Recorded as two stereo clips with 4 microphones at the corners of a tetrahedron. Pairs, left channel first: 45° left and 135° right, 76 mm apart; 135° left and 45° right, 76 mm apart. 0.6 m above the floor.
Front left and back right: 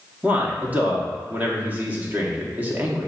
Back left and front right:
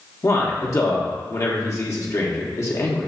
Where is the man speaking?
160° left, 0.9 m.